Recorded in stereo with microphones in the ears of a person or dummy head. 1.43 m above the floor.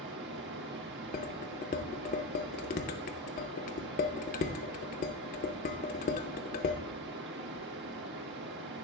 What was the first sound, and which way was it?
Running water, 55° right (ahead or behind).